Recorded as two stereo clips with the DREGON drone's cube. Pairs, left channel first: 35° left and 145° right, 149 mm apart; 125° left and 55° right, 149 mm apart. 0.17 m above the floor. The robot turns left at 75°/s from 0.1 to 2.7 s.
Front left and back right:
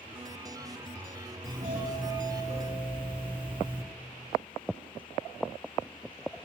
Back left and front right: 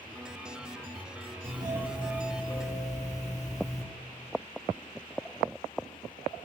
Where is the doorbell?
105° right, 6.5 m; by 3.8 s 160° left, 6.5 m.